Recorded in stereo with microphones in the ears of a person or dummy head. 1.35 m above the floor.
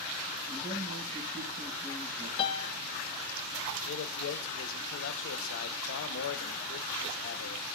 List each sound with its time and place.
0.5 s a man speaking: 15° right (ahead or behind), 5.5 m
2.4 s a piano: 40° left (ahead or behind), 0.6 m
3.9 s a man speaking: 75° left (ahead or behind), 0.7 m